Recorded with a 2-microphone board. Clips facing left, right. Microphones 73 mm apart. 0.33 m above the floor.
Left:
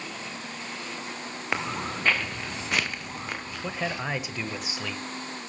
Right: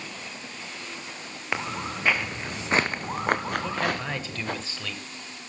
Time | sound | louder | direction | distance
1.5 | footsteps | even | centre (ahead or behind) | 1.6 m
3.6 | a man speaking | right 3 dB | 15° left (ahead or behind) | 1.2 m